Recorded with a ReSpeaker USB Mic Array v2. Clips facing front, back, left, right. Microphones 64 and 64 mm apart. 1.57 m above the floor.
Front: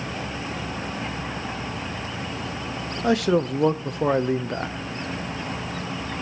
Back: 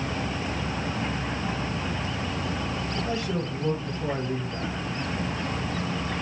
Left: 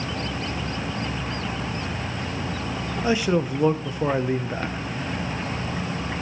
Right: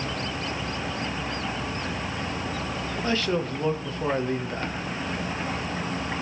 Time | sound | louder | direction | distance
3.0 | a man speaking | front 14 dB, left 4 dB | 15° left | 0.7 m